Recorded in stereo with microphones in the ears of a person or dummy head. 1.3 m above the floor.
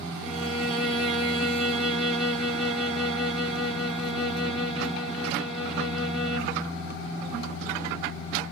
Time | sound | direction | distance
0.2 | a violin | centre (ahead or behind) | 1.0 m